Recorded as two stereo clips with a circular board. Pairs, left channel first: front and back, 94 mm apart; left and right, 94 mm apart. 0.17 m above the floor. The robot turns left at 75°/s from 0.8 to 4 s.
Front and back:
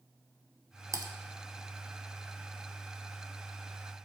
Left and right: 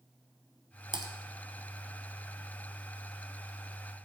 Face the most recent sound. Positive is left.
turn(degrees=5)